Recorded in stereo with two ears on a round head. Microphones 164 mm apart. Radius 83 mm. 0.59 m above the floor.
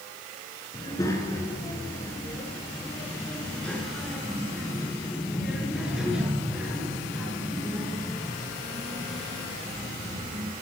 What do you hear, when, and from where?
0.7 s a child speaking: 20° left (ahead or behind), 6.5 m; by 10.5 s 20° right (ahead or behind), 8.5 m